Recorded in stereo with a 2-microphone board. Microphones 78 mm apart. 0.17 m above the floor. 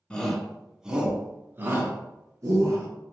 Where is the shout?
15° left (ahead or behind), 1.2 m; by 2.9 s 55° right (ahead or behind), 1.8 m.